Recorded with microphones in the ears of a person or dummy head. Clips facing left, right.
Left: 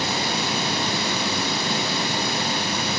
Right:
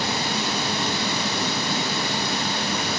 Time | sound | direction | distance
0.0 | running water | 15° left (ahead or behind) | 3.5 m